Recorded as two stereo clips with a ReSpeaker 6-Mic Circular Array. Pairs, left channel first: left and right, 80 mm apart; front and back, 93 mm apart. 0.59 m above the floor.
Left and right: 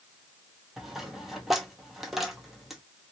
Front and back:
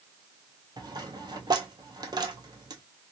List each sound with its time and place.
0.8 s a dropped coin: straight behind, 0.8 m